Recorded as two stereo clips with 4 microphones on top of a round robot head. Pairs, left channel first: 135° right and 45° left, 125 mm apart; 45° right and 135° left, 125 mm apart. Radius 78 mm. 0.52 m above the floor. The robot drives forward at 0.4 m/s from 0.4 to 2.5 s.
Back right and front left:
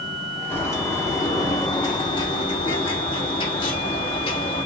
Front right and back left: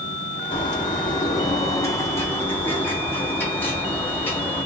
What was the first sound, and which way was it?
A bird, 70° right.